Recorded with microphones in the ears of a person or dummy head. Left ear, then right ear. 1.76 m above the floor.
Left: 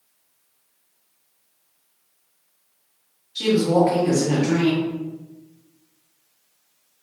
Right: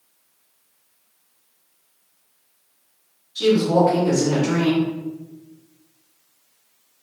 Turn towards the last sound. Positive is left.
turn(degrees=35)  # may be behind; listen again after turning